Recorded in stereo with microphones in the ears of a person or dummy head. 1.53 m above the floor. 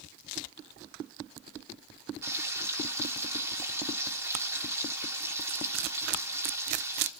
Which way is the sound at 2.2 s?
10° right (ahead or behind).